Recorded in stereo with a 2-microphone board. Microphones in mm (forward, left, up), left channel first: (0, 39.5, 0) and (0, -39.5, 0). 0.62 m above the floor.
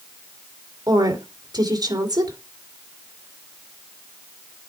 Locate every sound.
0.9 s a woman speaking: 55° right (ahead or behind), 2.5 m